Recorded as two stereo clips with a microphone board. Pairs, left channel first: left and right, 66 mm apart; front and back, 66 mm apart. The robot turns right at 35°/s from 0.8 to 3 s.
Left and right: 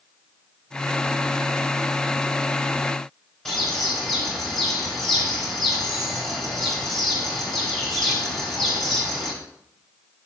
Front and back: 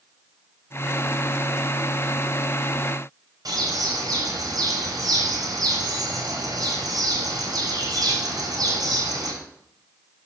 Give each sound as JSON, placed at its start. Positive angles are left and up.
{"t": 3.5, "sound": "a bird", "azimuth_deg": 175, "distance_m": 3.5}